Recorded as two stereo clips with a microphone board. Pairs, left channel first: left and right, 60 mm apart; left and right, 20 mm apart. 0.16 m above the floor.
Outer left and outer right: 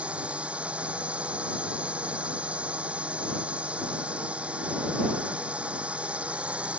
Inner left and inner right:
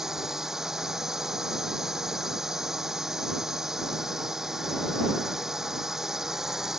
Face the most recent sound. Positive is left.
turn(degrees=-20)  # may be behind; listen again after turning